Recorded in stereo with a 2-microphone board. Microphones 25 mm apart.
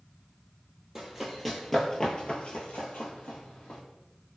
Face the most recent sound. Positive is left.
turn(degrees=70)  # may be behind; listen again after turning